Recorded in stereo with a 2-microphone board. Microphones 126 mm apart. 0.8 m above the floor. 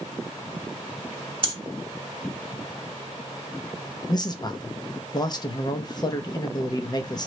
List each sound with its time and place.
1.4 s breathing: 40° right (ahead or behind), 1.0 m
4.1 s a man speaking: 35° left (ahead or behind), 0.6 m